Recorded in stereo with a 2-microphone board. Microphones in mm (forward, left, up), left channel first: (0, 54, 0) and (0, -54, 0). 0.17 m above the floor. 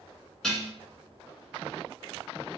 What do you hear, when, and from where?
0.4 s dishes clattering: 5° left (ahead or behind), 1.4 m